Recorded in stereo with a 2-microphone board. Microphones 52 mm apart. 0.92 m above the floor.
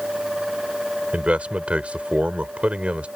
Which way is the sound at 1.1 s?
25° right (ahead or behind).